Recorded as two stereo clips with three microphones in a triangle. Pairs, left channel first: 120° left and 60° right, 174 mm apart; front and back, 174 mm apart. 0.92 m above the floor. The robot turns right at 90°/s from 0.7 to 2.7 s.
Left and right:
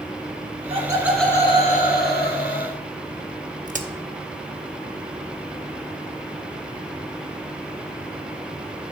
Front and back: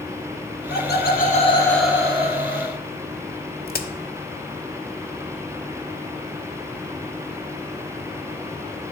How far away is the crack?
About 0.6 m.